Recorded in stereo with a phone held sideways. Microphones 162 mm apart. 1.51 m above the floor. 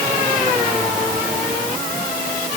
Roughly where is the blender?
I don't hear a blender.